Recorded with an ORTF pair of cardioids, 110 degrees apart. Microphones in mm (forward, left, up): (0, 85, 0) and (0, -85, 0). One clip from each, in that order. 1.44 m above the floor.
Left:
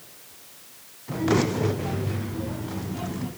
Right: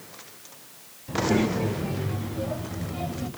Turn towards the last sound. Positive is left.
turn(degrees=-70)